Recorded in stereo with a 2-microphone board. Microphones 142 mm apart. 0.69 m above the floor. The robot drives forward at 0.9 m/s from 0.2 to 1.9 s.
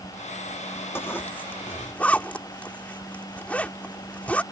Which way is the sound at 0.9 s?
15° left (ahead or behind).